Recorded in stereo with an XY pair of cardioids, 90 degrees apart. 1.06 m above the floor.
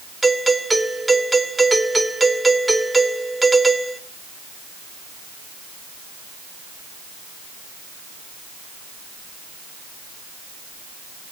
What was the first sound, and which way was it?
A doorbell, 20° right.